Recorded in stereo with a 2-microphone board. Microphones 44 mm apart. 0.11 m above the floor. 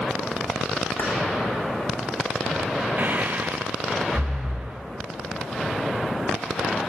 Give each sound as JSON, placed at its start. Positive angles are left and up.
{"t": 1.0, "sound": "keys jangling", "side_deg": 55, "distance_m": 7.5}
{"t": 3.0, "sound": "breathing", "side_deg": -40, "distance_m": 4.0}